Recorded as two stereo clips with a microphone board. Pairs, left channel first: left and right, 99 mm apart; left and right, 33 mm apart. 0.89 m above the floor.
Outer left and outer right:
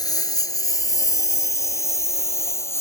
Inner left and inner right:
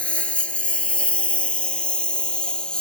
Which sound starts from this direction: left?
A lawn mower, at 0.0 s.